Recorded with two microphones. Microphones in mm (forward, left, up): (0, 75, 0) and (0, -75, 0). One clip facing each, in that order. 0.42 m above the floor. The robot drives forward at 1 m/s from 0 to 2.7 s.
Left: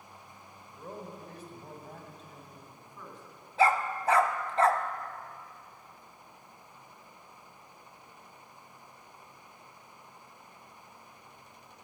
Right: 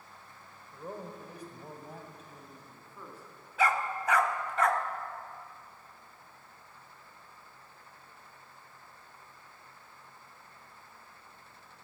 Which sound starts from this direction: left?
A dog barking, at 3.6 s.